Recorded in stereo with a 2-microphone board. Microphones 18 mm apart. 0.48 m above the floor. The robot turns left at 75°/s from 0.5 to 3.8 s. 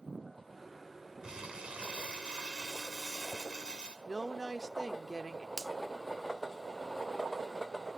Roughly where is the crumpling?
Ahead right.